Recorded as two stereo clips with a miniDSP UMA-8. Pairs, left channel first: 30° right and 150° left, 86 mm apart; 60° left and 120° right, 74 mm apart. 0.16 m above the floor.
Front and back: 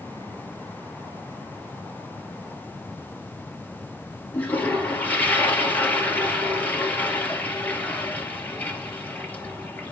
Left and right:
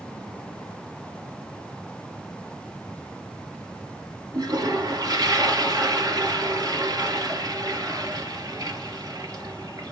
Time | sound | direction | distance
4.3 | a toilet flushing | 95° right | 2.5 m